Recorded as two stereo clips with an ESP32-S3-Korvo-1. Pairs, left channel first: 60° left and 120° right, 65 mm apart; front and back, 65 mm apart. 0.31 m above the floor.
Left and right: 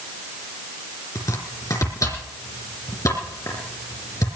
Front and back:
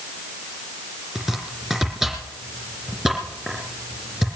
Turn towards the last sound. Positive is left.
turn(degrees=90)